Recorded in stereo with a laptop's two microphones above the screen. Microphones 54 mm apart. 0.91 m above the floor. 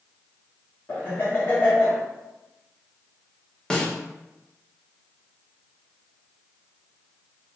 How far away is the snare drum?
About 0.6 m.